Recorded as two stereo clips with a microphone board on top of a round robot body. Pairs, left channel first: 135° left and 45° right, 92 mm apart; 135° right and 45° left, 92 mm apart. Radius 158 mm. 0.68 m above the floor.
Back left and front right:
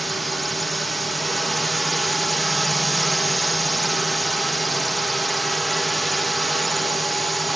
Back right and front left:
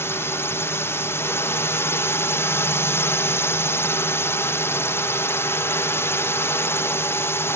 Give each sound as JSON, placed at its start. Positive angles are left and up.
{"t": 0.0, "sound": "a drone", "azimuth_deg": -135}